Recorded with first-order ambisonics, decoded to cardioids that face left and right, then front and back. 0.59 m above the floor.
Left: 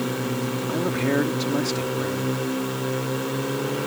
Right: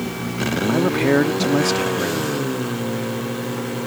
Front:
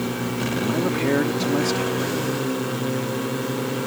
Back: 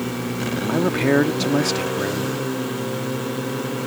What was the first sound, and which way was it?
A man speaking, 130° right.